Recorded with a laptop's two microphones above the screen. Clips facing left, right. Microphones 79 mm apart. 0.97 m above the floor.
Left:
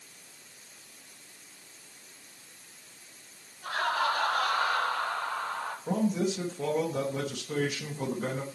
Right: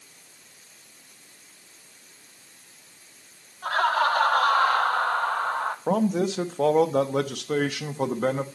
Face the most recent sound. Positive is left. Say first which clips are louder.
# right 4 dB
turn(degrees=-75)  # may be behind; listen again after turning